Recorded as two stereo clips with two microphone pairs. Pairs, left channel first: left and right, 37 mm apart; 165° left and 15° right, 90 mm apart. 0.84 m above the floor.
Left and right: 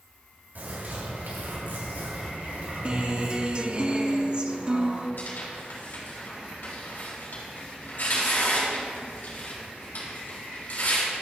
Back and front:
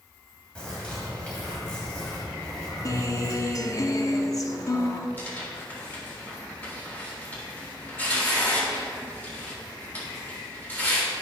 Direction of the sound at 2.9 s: 145° right.